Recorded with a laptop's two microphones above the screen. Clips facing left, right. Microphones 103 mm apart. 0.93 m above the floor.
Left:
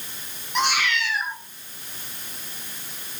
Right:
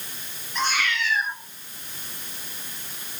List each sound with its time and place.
0.6 s a cat meowing: 75° left (ahead or behind), 4 m